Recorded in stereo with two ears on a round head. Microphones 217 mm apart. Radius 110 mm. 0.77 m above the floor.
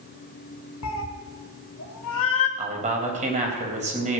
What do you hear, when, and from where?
0.8 s a cat meowing: 60° left (ahead or behind), 1.2 m
2.6 s a man speaking: 30° right (ahead or behind), 3.5 m